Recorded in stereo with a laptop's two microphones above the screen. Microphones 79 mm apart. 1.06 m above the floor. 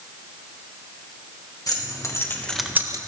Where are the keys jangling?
50° left (ahead or behind), 1.3 m; by 3.0 s 50° right (ahead or behind), 0.5 m.